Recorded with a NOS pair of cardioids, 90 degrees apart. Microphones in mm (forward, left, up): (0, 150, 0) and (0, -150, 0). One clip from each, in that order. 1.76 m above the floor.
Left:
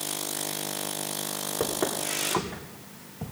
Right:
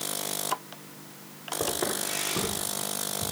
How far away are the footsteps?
About 8.5 m.